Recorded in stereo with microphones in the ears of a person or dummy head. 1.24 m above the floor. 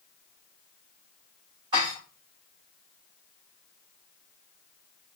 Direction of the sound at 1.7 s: 25° right (ahead or behind).